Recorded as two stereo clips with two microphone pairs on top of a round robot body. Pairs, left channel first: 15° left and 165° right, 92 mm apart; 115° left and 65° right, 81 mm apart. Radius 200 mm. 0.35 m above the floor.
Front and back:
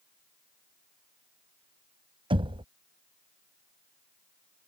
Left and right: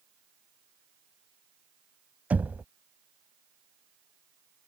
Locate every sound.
2.3 s knocking: 135° right